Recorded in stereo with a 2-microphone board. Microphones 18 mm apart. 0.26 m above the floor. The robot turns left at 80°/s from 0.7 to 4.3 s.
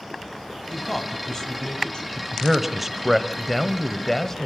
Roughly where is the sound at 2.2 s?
Centre.